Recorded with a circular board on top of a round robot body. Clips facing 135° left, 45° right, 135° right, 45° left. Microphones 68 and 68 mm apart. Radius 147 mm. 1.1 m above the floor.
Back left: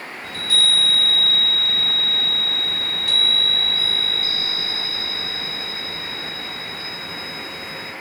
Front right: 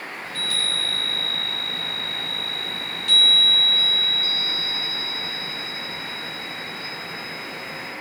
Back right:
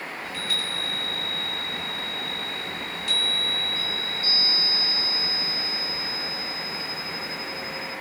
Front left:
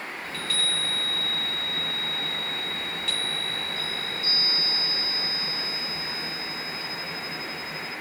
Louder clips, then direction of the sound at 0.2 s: Back left 7 dB, front left 1 dB; 145° left.